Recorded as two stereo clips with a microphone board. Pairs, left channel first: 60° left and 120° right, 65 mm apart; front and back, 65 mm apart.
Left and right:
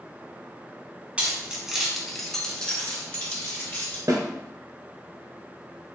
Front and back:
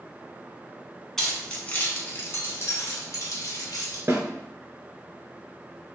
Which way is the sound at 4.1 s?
130° right.